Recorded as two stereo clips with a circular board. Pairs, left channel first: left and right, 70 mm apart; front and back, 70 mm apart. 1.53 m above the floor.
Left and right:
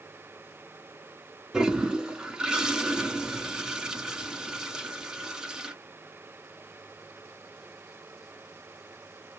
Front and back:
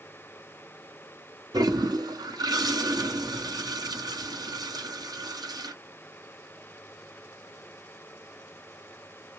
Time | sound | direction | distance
1.5 | a toilet flushing | 170° right | 0.8 m